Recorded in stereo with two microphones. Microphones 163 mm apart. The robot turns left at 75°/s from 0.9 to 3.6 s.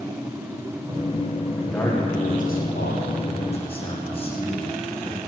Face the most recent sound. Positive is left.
turn(degrees=35)